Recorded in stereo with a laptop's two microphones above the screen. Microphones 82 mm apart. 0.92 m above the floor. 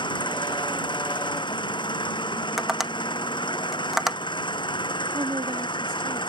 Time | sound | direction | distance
0.0 | an engine running | 70° left (ahead or behind) | ?
2.6 | tapping | centre (ahead or behind) | ?
5.1 | a woman speaking | 70° right (ahead or behind) | ?